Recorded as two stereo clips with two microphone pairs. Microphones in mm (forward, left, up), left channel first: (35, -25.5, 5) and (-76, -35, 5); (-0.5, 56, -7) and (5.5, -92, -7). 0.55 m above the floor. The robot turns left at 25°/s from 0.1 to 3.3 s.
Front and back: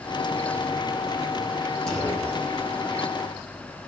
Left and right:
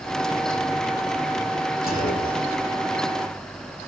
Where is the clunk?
90° left, 8 m; by 3.3 s 55° left, 8 m.